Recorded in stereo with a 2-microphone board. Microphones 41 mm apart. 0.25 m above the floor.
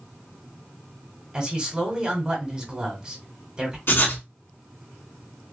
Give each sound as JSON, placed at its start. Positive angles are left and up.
{"t": 1.3, "sound": "a man speaking", "side_deg": -20, "distance_m": 1.3}
{"t": 3.9, "sound": "writing", "side_deg": 60, "distance_m": 1.1}